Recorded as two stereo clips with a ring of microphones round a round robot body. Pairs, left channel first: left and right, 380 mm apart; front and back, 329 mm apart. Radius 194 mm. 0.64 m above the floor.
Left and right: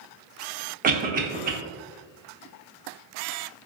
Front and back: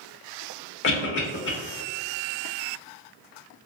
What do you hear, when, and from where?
0.8 s a cough: 35° right, 0.6 m